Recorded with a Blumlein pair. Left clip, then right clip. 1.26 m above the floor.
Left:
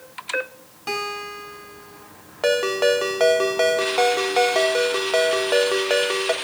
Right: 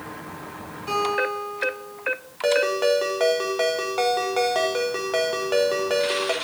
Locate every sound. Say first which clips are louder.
0.9 s a guitar: right 4 dB; 30° left, 3.5 m
2.4 s a ringtone: left 1 dB; 10° left, 1.1 m